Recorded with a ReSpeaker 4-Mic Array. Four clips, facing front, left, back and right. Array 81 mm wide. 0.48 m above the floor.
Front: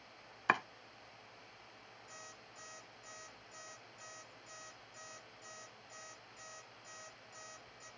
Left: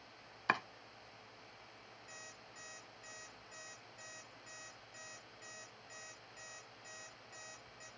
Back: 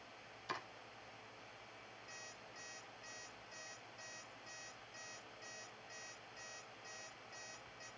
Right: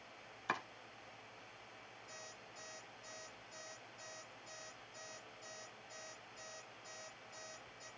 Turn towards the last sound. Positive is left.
turn(degrees=115)